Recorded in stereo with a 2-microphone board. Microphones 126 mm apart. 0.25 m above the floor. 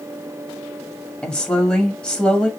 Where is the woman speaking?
5° left (ahead or behind), 1.2 m.